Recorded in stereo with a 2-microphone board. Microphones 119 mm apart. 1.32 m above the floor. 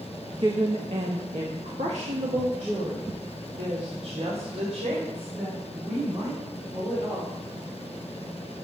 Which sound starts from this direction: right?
A woman speaking, at 0.3 s.